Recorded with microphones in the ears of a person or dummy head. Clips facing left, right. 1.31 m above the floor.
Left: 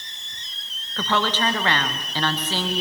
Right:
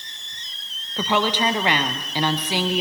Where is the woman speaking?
15° right (ahead or behind), 1.4 m.